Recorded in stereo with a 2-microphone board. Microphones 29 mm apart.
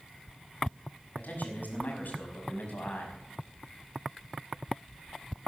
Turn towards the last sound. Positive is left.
turn(degrees=80)